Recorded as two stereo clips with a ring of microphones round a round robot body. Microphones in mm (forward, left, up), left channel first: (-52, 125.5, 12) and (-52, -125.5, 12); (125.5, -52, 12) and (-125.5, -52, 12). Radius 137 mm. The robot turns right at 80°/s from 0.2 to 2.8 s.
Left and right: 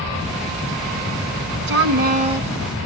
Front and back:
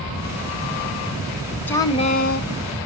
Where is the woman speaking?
80° right, 1.1 m; by 2.5 s 15° right, 1.1 m.